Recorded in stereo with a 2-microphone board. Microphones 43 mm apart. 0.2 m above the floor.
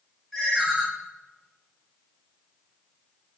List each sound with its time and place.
0.3 s a ringtone: centre (ahead or behind), 1.3 m